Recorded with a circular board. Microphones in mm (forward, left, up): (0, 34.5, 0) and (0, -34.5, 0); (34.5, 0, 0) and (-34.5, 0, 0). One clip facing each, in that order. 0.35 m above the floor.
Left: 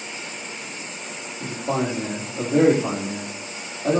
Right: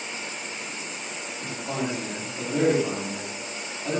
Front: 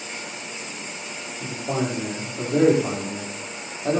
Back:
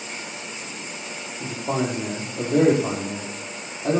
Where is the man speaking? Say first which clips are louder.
Left 6 dB, back 1 dB; 145° left, 8 m.